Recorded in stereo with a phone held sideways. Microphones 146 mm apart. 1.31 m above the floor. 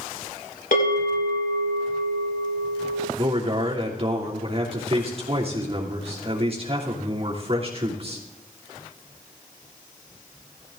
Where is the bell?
75° left (ahead or behind), 5.5 m.